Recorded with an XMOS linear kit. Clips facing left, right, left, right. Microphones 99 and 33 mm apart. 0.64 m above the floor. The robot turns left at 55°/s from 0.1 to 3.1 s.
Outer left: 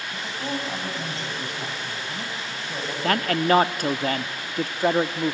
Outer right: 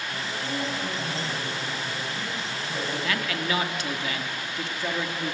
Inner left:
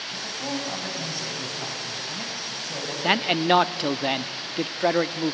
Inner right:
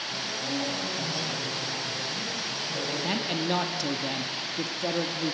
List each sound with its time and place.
0.1 s a man speaking: 160° left, 5.5 m; by 2.9 s 5° left, 5.5 m
3.0 s a man speaking: 45° left (ahead or behind), 0.8 m